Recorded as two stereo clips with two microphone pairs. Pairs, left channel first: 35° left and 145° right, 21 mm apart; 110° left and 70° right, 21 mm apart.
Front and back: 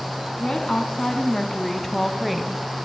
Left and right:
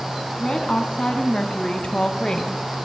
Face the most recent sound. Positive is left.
turn(degrees=140)